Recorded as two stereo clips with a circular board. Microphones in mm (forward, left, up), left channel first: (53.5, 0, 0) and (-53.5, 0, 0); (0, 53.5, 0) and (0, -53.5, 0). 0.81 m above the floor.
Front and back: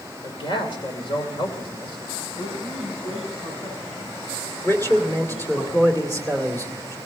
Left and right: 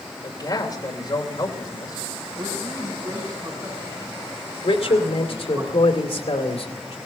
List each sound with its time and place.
0.2 s a man speaking: 40° left, 2.5 m
2.4 s a man speaking: 35° right, 7 m
4.6 s a man speaking: 65° left, 2.5 m